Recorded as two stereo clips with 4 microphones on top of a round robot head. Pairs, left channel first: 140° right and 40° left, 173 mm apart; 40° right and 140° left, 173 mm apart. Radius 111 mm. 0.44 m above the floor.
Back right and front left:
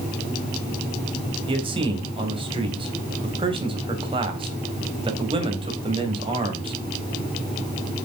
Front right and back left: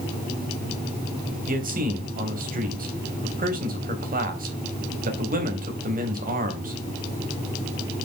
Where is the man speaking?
100° left, 3.5 m.